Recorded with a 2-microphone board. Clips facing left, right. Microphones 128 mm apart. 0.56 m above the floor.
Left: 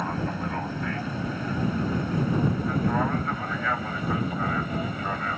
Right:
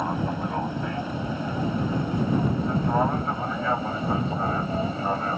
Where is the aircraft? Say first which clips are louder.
Right 2 dB; 20° right (ahead or behind); by 5.4 s 30° right (ahead or behind).